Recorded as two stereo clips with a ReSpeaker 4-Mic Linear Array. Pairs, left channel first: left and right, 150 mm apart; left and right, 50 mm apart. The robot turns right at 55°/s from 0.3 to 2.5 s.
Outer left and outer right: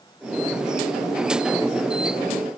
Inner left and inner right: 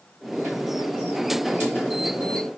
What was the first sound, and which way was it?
Only background noise.